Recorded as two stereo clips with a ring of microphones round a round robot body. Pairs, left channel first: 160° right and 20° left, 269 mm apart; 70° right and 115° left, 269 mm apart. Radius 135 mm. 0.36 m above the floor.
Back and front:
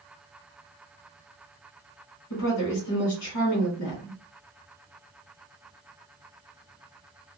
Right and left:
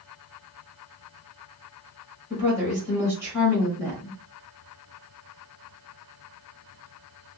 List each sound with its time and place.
2.3 s a woman speaking: 170° right, 1.4 m